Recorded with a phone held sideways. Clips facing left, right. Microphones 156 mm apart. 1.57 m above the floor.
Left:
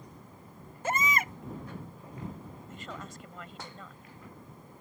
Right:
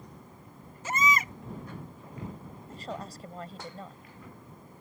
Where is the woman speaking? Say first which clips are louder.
Right 6 dB; 35° right (ahead or behind).